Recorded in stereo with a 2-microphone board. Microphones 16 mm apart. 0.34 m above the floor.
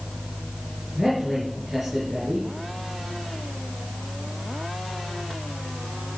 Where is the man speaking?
20° right (ahead or behind), 5.5 m.